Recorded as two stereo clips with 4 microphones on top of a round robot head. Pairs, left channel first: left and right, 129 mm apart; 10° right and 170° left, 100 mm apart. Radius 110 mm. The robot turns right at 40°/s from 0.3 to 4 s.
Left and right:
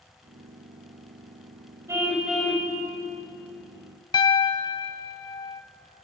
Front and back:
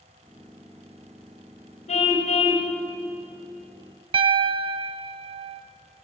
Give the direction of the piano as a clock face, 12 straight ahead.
7 o'clock.